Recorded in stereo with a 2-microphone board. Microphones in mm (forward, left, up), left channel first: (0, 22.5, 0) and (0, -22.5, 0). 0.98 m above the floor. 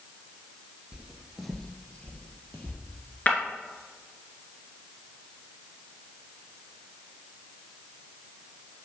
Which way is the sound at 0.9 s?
20° right (ahead or behind).